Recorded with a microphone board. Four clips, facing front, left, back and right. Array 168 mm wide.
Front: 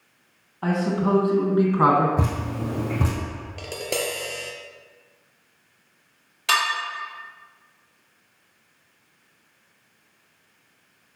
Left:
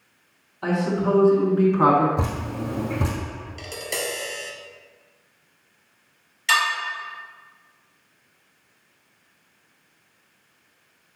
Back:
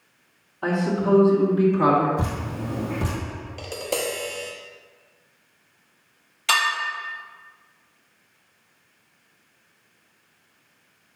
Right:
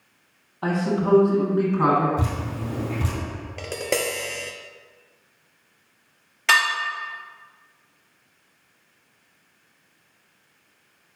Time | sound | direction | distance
0.6 | a man speaking | 75° right | 1.3 m
2.2 | dripping | 30° left | 2.5 m
3.6 | tapping | 80° right | 1.0 m
6.5 | dishes clattering | 70° right | 2 m